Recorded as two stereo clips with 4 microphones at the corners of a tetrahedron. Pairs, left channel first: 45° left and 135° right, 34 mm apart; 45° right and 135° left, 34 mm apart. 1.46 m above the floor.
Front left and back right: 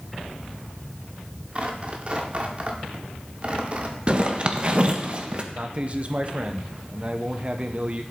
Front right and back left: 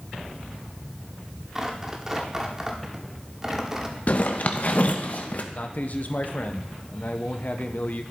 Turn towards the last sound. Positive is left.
turn(degrees=-80)